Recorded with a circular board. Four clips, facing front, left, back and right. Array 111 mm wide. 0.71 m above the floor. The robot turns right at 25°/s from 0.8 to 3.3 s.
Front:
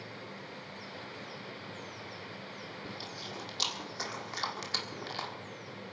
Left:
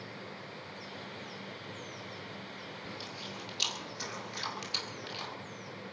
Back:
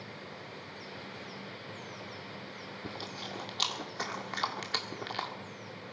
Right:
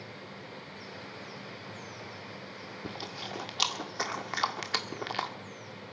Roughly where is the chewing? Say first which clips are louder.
Right 7 dB, back 5 dB; behind right.